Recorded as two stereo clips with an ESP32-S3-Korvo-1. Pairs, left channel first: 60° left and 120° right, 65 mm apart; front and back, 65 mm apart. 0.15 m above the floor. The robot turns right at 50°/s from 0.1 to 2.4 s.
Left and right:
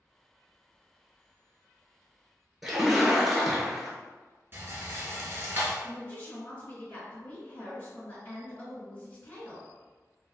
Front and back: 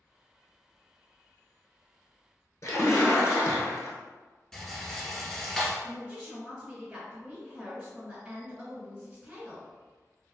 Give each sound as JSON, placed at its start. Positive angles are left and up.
{"t": 2.6, "sound": "a splash", "azimuth_deg": -35, "distance_m": 0.7}
{"t": 4.5, "sound": "a rattle", "azimuth_deg": -80, "distance_m": 0.8}
{"t": 5.8, "sound": "a woman speaking", "azimuth_deg": 105, "distance_m": 1.9}